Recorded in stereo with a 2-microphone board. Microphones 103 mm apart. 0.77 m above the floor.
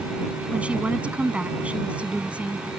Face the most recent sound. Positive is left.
turn(degrees=-10)  # may be behind; listen again after turning